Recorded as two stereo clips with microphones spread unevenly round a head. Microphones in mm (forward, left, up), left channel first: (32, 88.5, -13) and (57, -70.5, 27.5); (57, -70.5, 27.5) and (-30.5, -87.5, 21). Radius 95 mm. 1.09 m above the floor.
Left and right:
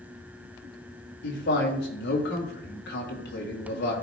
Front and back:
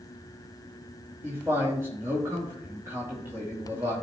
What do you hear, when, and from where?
1.2 s a man speaking: 115° left, 2 m